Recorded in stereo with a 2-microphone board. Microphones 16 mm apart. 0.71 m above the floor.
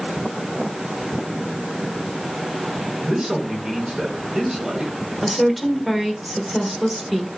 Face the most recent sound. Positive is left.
turn(degrees=0)  # may be behind; listen again after turning